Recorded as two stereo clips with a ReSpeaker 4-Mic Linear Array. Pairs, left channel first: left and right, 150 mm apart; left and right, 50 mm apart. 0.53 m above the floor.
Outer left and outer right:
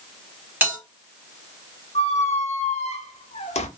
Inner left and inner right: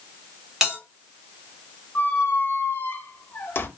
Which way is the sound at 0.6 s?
15° right (ahead or behind).